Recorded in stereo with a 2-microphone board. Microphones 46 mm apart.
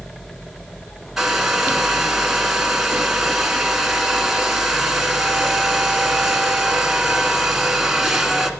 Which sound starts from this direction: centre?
A hair dryer, at 1.2 s.